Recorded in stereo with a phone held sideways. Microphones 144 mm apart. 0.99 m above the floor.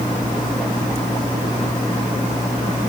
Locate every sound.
Only background noise.